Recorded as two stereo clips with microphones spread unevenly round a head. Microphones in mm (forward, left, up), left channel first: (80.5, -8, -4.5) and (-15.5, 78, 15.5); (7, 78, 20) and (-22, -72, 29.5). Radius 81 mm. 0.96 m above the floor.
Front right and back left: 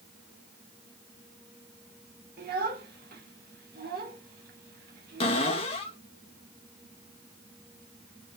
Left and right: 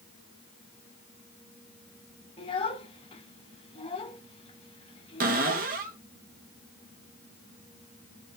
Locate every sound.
2.4 s a child speaking: 135° left, 2 m
5.2 s a cupboard door: 80° right, 1.2 m